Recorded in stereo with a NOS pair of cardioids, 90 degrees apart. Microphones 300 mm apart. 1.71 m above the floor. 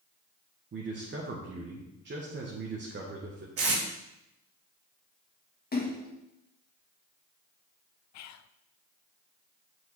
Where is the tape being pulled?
50° right, 2.5 m.